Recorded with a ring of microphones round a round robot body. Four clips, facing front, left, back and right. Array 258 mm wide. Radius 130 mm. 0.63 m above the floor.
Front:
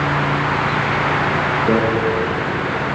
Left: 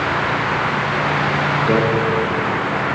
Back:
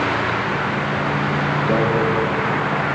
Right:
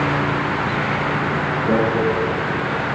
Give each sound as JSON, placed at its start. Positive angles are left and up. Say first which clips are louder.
{"t": 1.7, "sound": "a microwave", "louder": "left 1 dB, front 4 dB", "azimuth_deg": -15, "distance_m": 8.5}